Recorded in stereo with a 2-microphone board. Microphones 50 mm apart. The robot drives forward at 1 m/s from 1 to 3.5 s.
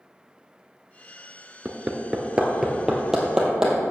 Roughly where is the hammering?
Right.